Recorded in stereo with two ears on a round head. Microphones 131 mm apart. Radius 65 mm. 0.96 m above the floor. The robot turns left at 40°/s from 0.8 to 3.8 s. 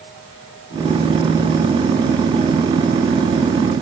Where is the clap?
I don't hear a clap.